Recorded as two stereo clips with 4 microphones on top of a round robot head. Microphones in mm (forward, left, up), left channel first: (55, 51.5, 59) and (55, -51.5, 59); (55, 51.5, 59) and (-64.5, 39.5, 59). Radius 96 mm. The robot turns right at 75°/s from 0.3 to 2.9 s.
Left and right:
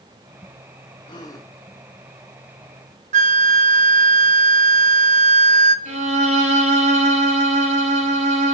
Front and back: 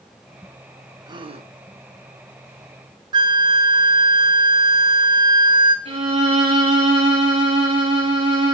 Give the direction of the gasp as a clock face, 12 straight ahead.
8 o'clock.